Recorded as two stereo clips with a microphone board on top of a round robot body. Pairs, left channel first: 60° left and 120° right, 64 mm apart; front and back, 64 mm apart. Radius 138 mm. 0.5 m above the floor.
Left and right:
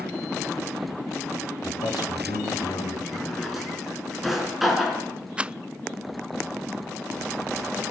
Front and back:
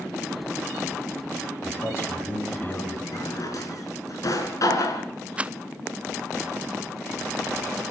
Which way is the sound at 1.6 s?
50° left.